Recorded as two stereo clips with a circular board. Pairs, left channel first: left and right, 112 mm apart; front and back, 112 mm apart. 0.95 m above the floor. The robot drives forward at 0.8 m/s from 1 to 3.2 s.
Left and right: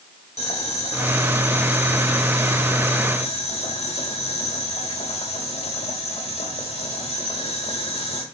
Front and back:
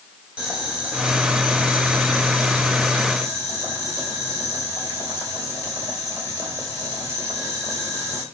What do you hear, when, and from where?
0.4 s boiling: 100° left, 5 m; by 8.2 s 115° left, 5.5 m